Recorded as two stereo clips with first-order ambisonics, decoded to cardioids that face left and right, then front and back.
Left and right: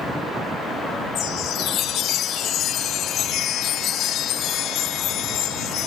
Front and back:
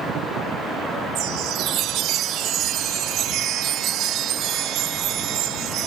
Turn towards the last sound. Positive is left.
turn(degrees=140)